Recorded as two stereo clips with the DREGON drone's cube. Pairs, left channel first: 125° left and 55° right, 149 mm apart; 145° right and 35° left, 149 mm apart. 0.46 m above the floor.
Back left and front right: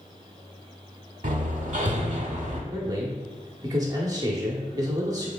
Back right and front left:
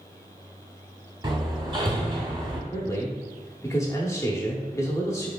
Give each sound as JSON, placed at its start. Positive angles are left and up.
{"t": 1.2, "sound": "hammering", "azimuth_deg": -25, "distance_m": 0.8}
{"t": 2.7, "sound": "a man speaking", "azimuth_deg": -95, "distance_m": 0.8}